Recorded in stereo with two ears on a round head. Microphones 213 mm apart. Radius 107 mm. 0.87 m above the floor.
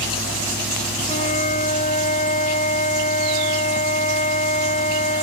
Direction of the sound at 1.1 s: 30° left (ahead or behind).